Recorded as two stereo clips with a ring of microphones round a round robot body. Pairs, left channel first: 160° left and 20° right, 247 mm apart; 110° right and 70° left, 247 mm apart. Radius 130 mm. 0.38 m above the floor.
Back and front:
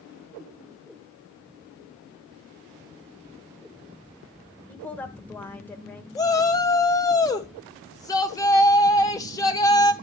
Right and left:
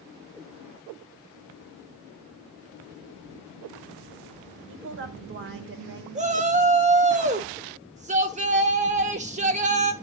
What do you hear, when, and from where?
4.7 s a woman speaking: 75° left, 1.3 m
6.2 s a shout: 95° left, 0.9 m